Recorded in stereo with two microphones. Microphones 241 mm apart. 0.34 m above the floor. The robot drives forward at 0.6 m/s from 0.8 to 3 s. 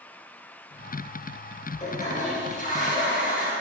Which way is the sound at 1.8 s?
30° left (ahead or behind).